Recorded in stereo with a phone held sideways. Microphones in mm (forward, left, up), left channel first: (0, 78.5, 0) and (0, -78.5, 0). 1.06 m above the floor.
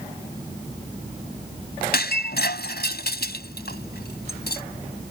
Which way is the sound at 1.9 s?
80° left.